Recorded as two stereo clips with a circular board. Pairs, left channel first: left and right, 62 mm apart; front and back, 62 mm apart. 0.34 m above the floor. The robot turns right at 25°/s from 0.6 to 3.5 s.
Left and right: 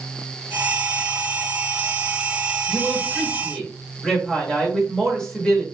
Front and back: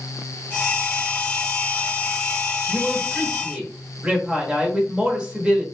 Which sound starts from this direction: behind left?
A woman speaking, at 2.7 s.